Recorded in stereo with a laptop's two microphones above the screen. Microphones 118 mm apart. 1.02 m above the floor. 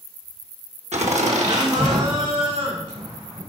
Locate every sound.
0.9 s laughter: 70° right (ahead or behind), 1.5 m; by 3.4 s 75° right (ahead or behind), 5.5 m